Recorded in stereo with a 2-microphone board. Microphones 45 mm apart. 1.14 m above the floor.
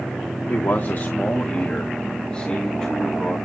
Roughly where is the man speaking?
Left.